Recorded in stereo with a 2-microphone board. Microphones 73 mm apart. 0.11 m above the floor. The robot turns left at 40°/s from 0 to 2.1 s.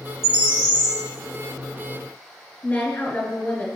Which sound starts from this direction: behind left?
A bird, at 0.2 s.